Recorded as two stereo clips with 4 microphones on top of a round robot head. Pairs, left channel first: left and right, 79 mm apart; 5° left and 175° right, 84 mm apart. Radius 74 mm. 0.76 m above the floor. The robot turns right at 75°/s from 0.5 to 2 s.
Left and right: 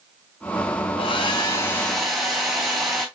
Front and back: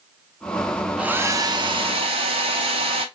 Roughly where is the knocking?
I don't hear knocking.